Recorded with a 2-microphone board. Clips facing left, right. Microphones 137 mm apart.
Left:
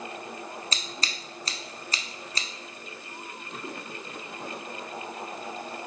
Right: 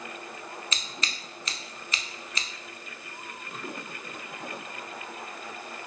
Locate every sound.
0.7 s scissors: 35° left (ahead or behind), 0.5 m